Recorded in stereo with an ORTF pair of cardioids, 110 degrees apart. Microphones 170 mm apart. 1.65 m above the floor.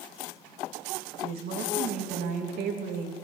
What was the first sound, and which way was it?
A woman speaking, 65° right.